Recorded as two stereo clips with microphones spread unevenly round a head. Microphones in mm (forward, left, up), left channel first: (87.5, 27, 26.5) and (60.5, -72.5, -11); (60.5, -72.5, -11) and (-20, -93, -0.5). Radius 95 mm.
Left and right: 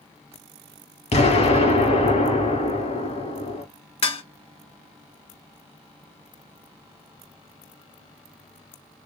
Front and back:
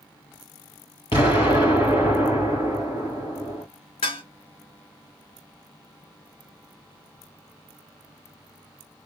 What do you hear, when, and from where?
1.1 s an explosion: 70° left, 3 m
4.0 s dishes clattering: 60° left, 1.4 m